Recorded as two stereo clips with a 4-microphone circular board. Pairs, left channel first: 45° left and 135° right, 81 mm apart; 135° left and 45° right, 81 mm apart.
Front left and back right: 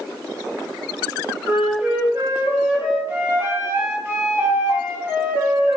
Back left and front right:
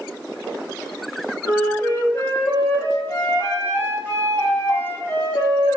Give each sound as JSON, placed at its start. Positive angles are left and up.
{"t": 1.4, "sound": "a flute", "azimuth_deg": 175, "distance_m": 1.0}